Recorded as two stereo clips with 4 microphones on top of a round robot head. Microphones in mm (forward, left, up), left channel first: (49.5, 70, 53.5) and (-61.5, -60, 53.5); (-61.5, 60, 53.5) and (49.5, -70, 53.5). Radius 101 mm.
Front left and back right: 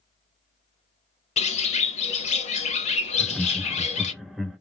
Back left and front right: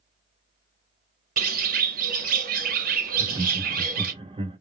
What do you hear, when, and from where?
1.4 s a bird: 5° right, 0.8 m
3.1 s laughter: 45° right, 0.7 m